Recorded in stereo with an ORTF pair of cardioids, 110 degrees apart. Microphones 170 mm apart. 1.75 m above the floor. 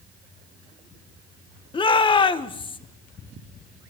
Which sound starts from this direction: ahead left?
A shout, at 1.7 s.